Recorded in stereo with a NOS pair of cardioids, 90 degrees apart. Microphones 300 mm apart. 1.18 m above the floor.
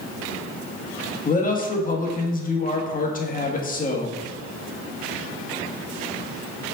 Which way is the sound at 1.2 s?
30° left.